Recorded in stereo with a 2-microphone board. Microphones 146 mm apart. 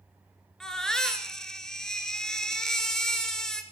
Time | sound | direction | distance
0.6 | a baby crying | 5° left (ahead or behind) | 1.8 m